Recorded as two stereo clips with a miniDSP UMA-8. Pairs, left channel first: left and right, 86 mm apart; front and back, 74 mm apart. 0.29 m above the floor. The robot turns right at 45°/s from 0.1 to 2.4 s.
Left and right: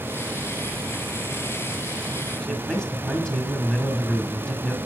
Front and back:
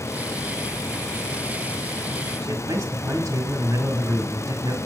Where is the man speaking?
170° left, 1.6 m.